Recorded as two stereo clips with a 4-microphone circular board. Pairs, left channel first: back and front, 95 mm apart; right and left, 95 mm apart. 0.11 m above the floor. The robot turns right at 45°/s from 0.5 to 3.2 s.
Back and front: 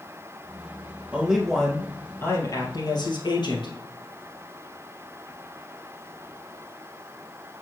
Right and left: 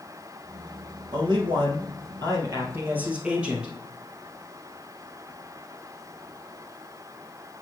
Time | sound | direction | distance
1.1 | a man speaking | 70° left | 2 m